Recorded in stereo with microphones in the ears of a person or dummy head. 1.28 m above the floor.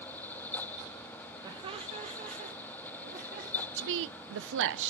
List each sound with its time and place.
1.4 s laughter: 25° right (ahead or behind), 1.3 m; by 3.7 s 50° right (ahead or behind), 2.5 m
3.8 s a woman speaking: 60° right (ahead or behind), 0.6 m